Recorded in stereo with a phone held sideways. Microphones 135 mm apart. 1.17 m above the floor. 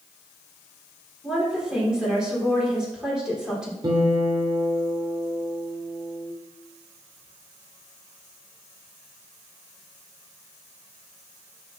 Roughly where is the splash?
No splash in this recording.